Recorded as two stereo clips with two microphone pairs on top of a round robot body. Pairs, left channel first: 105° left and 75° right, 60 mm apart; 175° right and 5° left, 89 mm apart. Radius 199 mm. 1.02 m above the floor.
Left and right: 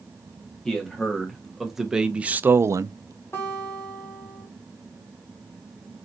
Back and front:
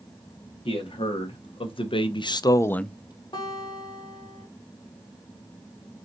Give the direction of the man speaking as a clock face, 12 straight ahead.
6 o'clock.